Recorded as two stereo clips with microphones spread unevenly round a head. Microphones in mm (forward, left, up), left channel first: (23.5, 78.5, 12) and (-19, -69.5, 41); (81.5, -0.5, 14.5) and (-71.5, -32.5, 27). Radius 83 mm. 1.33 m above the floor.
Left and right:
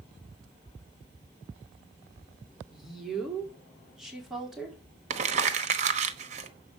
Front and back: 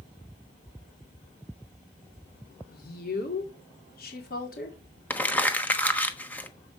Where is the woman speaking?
20° right, 4 m.